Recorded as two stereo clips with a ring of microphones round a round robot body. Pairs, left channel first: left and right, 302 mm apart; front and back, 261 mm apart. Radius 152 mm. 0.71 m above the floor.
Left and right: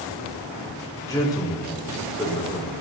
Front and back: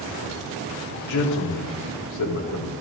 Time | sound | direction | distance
1.1 | a man speaking | 10° left | 1.7 m